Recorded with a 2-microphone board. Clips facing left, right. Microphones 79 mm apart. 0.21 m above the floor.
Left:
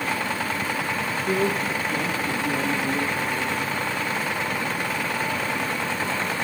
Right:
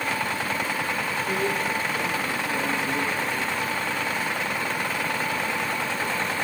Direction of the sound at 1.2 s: 65° left (ahead or behind).